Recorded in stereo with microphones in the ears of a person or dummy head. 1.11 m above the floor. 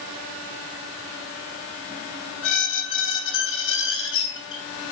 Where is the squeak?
60° left (ahead or behind), 3 m.